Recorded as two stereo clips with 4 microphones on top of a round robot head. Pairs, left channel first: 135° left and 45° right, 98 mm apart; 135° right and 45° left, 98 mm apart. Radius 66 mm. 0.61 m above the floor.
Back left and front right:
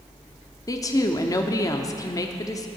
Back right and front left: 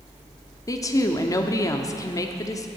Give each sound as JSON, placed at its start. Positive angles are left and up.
{"t": 0.7, "sound": "a woman speaking", "azimuth_deg": 180, "distance_m": 1.2}